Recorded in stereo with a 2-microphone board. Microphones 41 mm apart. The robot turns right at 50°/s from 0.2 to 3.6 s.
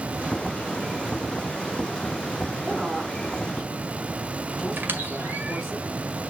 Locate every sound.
2.6 s a woman speaking: 35° right, 4.5 m; by 5.8 s 15° left, 4.5 m
4.8 s a squeak: 60° right (ahead or behind), 1.7 m